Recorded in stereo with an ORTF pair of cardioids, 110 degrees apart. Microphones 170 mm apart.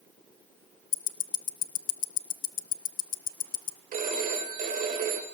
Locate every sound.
0.9 s ticking: 55° left, 0.6 m
3.9 s a phone ringing: 55° right, 2.5 m